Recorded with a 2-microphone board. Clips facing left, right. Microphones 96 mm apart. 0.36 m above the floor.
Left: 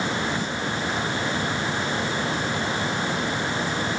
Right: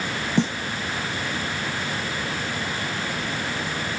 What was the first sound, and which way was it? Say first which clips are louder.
A snare drum: right 7 dB; 75° right (ahead or behind).